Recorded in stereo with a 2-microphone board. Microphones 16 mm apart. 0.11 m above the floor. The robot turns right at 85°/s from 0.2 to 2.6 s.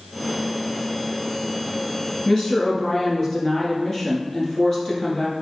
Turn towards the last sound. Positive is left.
turn(degrees=30)  # may be behind; listen again after turning